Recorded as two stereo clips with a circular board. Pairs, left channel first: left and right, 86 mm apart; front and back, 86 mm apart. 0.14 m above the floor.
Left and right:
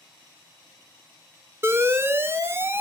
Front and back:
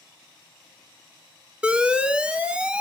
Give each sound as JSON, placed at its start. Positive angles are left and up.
{"t": 1.6, "sound": "an alarm", "azimuth_deg": -110, "distance_m": 0.8}